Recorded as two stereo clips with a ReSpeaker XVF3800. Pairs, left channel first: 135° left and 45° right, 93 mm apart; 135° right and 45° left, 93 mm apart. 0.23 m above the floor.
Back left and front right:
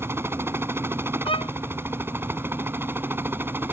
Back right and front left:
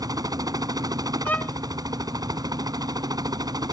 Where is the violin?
155° left.